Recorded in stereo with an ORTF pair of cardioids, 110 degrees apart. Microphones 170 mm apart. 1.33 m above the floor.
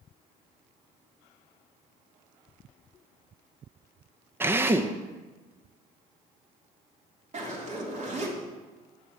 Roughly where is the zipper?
Ahead right.